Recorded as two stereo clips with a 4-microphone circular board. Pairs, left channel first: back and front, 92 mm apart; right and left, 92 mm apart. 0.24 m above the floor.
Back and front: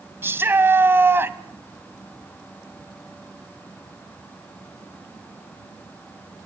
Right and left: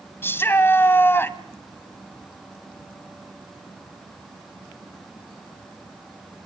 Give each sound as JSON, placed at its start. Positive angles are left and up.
{"t": 0.2, "sound": "a shout", "azimuth_deg": -45, "distance_m": 1.6}